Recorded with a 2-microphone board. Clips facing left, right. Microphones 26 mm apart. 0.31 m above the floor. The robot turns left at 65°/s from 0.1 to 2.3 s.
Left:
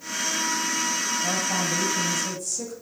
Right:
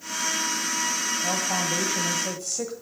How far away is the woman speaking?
About 1.2 m.